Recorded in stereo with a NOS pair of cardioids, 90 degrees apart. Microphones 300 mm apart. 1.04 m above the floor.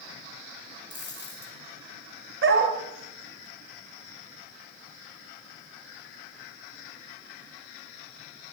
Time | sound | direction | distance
0.9 | a dropped coin | 35° left | 4 m
2.4 | a dog barking | 45° right | 2.5 m